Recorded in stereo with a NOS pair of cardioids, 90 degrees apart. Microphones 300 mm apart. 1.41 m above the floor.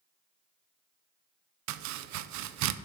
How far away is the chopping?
About 0.5 m.